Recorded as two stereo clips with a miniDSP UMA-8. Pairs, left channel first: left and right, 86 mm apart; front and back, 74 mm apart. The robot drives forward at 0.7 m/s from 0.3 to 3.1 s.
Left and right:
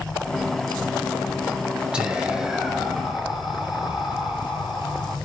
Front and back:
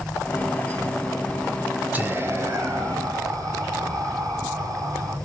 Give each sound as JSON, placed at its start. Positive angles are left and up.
{"t": 1.9, "sound": "whispering", "azimuth_deg": -160, "distance_m": 1.0}